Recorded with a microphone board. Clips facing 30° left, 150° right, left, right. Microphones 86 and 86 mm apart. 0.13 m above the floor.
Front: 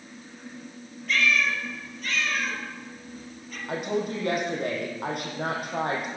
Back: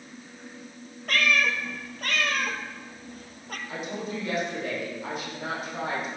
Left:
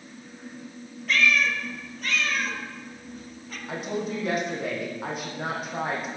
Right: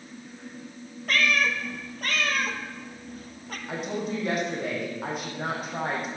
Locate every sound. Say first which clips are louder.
1.1 s a cat meowing: even, left 1 dB; 125° right, 1.7 m
3.7 s a woman speaking: front 6 dB, left 1 dB; straight ahead, 5 m